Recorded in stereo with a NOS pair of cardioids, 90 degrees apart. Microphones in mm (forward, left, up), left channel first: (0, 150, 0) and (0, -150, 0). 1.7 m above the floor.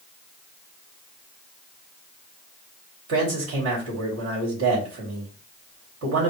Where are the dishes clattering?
I don't hear dishes clattering.